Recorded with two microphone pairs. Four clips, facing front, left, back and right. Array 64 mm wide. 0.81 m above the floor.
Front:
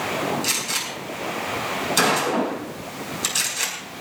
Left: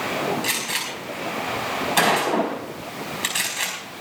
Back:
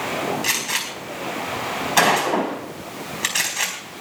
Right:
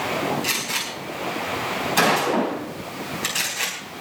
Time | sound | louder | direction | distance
0.4 | a gunshot | even, back 2 dB | 170° left | 4.5 m